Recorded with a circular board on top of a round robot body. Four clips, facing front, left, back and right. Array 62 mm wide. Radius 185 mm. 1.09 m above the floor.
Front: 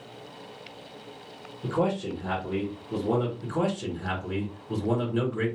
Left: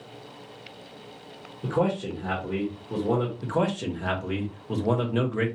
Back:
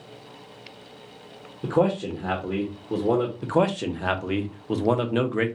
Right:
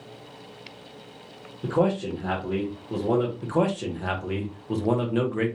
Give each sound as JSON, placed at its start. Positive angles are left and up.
{"t": 1.6, "sound": "a man speaking", "azimuth_deg": -165, "distance_m": 1.5}
{"t": 3.4, "sound": "a man speaking", "azimuth_deg": -175, "distance_m": 1.1}